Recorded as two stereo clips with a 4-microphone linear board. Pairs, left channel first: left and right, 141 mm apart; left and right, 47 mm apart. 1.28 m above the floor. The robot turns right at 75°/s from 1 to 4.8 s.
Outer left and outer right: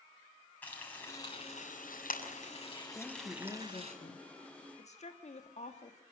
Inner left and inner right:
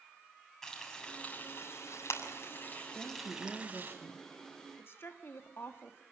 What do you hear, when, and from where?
0.6 s frying: 10° left (ahead or behind), 6.5 m; by 3.9 s 50° right (ahead or behind), 6.5 m
2.9 s a woman speaking: 15° right, 1.4 m; by 4.3 s 85° left, 1.4 m
4.8 s a woman speaking: 55° left (ahead or behind), 1.8 m